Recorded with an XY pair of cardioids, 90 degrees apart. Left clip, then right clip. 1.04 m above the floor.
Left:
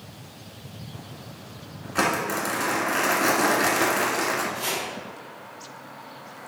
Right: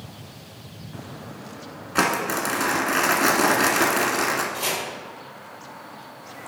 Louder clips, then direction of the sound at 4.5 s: Right 2 dB; 70° right.